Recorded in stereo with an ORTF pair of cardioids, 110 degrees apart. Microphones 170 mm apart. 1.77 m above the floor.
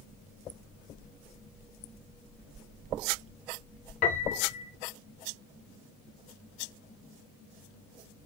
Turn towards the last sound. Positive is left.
turn(degrees=60)